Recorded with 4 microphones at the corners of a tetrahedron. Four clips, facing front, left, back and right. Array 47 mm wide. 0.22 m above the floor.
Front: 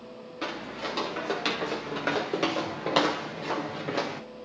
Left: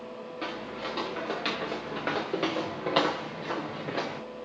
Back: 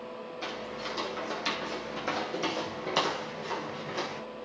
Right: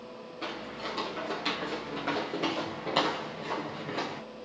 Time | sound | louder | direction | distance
0.4 | footsteps | left 1 dB, front 4 dB | 25° left | 6.5 m